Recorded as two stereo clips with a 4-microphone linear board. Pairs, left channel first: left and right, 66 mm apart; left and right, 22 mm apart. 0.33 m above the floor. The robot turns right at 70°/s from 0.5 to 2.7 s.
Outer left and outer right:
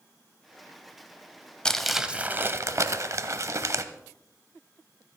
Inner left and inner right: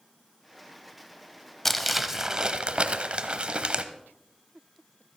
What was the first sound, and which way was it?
Crumpling, 165° left.